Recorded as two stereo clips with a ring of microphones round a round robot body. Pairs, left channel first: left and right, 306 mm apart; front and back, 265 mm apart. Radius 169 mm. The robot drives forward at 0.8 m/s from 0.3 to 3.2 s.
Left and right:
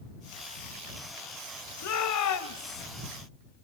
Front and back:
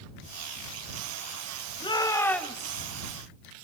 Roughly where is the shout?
Left.